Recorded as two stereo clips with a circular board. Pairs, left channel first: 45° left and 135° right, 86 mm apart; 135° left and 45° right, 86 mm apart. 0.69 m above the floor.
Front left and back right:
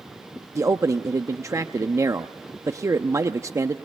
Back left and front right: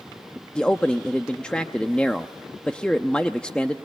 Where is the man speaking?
155° right, 0.7 m.